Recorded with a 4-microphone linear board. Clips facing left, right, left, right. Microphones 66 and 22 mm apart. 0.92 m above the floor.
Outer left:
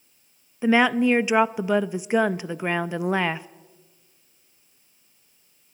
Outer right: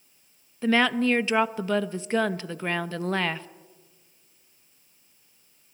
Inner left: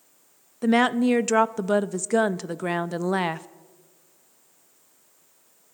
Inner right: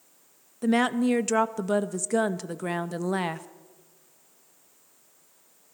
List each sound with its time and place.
0.6 s a woman speaking: 15° left (ahead or behind), 0.5 m